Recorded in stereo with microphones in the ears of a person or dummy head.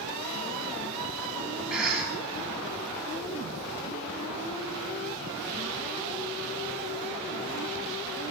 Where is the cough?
5° left (ahead or behind), 1.2 m.